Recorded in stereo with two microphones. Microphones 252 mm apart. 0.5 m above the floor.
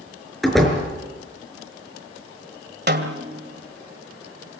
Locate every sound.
0.4 s a door slam: centre (ahead or behind), 5 m
2.9 s a snare drum: 45° right (ahead or behind), 2 m